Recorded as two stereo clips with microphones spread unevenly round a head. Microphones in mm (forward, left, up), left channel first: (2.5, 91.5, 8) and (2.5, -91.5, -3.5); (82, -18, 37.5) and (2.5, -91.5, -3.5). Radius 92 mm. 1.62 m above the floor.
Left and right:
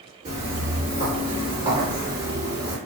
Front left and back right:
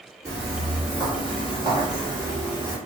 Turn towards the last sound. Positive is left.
turn(degrees=-45)